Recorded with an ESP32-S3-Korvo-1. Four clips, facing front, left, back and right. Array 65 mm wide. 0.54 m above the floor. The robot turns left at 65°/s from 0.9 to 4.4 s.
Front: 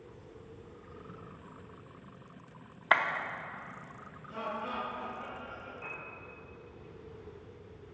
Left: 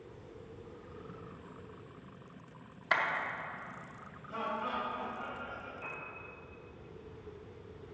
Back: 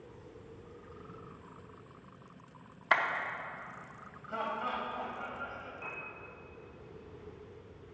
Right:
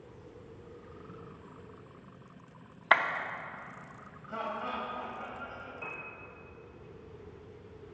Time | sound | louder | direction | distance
2.9 | a clap | right 6 dB, front 2 dB | 65° right | 0.6 m
4.3 | laughter | even, back 2 dB | 150° right | 3 m
5.8 | a piano | right 1 dB, back 1 dB | 95° right | 2 m